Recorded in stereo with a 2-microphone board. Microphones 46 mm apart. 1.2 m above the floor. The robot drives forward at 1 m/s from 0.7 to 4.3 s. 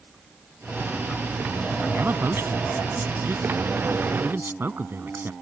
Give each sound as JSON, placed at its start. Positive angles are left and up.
{"t": 1.9, "sound": "a man speaking", "side_deg": -65}